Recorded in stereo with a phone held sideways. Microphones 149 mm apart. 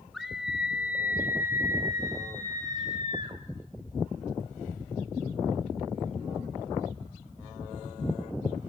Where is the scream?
Centre (ahead or behind), 4 m; by 3.4 s 35° right (ahead or behind), 5 m.